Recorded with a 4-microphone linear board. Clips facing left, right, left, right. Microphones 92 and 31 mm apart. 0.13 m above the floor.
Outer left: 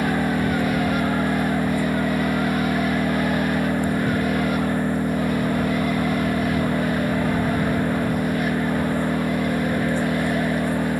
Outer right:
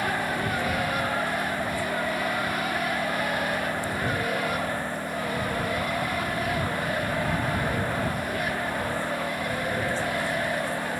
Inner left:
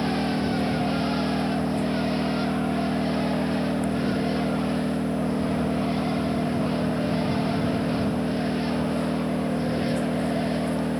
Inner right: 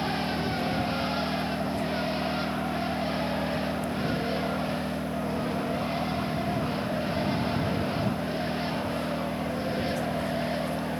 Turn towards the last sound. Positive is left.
turn(degrees=55)  # may be behind; listen again after turning